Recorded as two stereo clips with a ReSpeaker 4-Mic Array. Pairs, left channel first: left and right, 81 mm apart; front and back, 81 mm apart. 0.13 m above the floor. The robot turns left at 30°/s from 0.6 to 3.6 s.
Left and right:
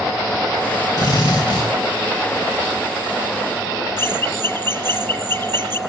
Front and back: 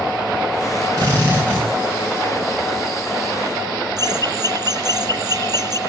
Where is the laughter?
145° left, 3.5 m.